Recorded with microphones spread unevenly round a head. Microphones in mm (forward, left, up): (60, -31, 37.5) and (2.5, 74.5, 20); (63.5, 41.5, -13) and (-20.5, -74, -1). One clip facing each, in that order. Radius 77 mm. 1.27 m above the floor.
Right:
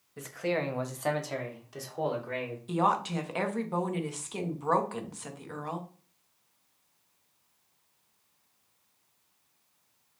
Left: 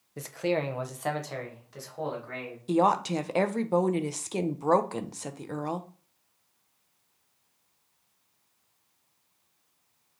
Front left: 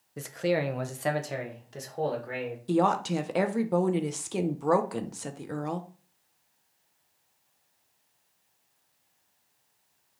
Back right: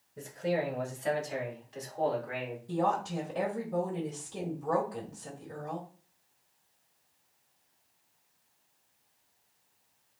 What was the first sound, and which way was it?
A man speaking, 70° left.